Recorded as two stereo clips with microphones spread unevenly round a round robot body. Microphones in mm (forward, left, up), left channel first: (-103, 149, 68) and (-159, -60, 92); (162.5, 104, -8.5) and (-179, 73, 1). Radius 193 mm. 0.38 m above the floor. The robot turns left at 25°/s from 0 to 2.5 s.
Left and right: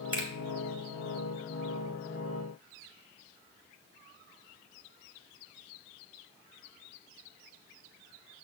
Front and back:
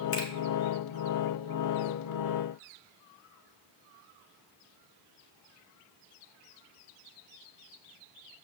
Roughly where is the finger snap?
Ahead right.